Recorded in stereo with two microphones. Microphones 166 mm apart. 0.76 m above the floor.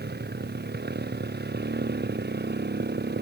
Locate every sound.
0.0 s a motorcycle: 70° right (ahead or behind)